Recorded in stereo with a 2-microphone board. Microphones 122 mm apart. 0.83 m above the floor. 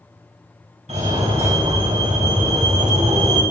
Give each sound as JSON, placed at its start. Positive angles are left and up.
{"t": 0.9, "sound": "a fire alarm", "side_deg": -65, "distance_m": 4.0}